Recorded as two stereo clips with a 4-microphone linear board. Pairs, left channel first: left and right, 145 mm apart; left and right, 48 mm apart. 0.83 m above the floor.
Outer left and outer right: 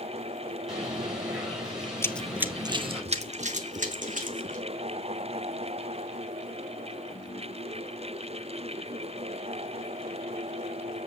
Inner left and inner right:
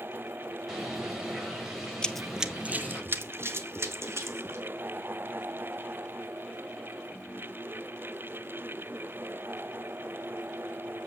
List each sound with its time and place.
0.7 s a bird: 5° right (ahead or behind), 5 m
2.0 s running footsteps: 20° left (ahead or behind), 0.8 m; by 4.6 s 65° right (ahead or behind), 3 m